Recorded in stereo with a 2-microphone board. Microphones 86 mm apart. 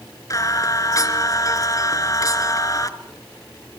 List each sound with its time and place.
0.3 s singing: 40° left (ahead or behind), 1.9 m